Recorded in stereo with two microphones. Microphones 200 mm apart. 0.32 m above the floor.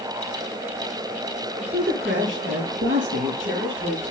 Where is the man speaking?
75° right (ahead or behind), 5.5 m.